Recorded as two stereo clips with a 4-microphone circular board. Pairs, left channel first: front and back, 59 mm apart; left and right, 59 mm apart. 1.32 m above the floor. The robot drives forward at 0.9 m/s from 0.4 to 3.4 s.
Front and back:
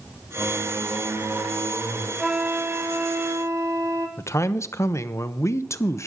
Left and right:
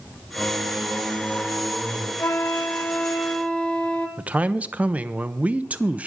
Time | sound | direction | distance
0.3 | singing | straight behind | 3 m
2.2 | a flute | 95° left | 0.5 m
4.2 | a man speaking | 25° right | 0.6 m